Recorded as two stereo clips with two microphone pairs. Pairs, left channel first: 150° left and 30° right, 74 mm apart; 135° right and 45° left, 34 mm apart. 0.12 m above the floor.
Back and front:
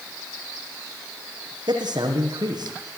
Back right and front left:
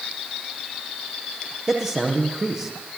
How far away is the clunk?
No clunk in this recording.